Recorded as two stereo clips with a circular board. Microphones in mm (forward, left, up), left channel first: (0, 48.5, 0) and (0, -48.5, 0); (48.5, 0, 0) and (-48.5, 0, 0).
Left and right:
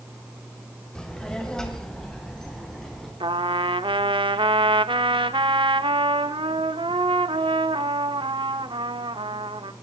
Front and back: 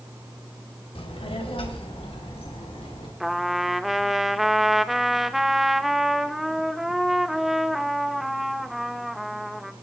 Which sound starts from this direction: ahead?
A child speaking, at 0.9 s.